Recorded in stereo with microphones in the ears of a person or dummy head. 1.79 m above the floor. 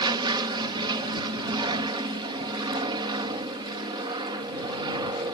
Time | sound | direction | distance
0.0 | an aircraft | 25° right (ahead or behind) | ?